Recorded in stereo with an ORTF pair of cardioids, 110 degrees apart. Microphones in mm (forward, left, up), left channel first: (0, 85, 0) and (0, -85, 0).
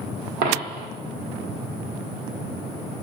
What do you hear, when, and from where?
0.4 s a dropped coin: 65° right, 1.5 m